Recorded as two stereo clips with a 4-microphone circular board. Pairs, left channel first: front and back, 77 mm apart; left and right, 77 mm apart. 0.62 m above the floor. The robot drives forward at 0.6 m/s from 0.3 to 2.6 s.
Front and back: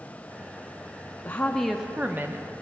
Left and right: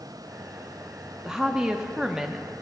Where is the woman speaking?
20° right, 0.6 m; by 2.5 s 170° right, 0.7 m.